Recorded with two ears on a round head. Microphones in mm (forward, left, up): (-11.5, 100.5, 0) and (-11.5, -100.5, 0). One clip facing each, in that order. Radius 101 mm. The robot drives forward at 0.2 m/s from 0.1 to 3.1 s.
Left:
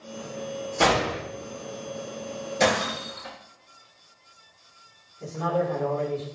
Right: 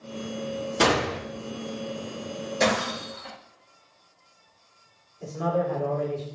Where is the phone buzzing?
I don't hear a phone buzzing.